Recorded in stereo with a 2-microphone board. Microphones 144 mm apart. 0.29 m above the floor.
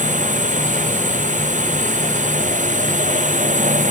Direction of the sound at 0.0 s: 60° right (ahead or behind).